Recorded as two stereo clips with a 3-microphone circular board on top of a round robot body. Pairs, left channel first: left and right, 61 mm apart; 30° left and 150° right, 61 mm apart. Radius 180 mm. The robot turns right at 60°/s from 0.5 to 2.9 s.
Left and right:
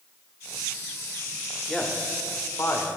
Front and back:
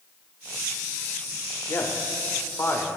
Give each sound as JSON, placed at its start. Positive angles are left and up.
{"t": 1.7, "sound": "a man speaking", "azimuth_deg": 10, "distance_m": 1.6}